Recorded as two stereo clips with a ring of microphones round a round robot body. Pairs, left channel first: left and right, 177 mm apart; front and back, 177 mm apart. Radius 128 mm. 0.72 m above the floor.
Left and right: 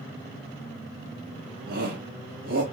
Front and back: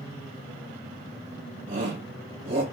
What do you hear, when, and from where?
1.7 s a shout: 120° right, 1.8 m